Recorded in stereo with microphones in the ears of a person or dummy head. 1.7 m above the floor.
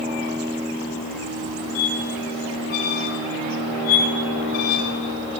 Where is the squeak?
30° left (ahead or behind), 0.6 m.